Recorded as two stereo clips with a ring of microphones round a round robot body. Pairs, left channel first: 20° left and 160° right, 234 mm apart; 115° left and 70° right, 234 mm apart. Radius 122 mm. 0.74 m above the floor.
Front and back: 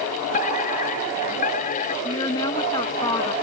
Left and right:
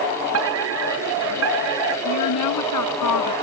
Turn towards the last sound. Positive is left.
turn(degrees=95)